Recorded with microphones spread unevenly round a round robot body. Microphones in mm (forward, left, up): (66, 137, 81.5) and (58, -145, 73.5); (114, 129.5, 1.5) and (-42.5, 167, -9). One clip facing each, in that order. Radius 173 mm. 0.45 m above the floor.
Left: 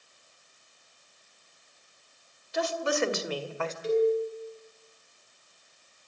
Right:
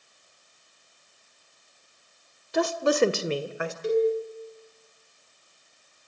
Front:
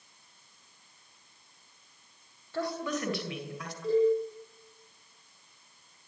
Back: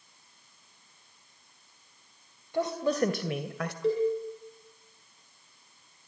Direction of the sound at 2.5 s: 115° right.